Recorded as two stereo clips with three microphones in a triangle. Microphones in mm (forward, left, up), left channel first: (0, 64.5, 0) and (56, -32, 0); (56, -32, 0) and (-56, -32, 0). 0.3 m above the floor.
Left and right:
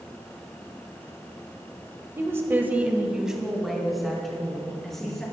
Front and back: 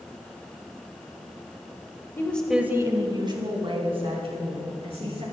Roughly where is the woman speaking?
Ahead right.